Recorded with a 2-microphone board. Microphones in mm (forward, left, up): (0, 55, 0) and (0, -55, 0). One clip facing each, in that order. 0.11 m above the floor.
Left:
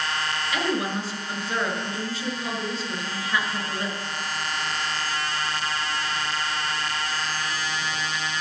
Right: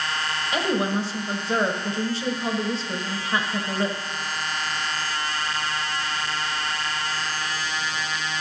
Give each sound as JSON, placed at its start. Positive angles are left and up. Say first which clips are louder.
{"t": 0.5, "sound": "a woman speaking", "louder": "right 3 dB", "side_deg": -30, "distance_m": 1.4}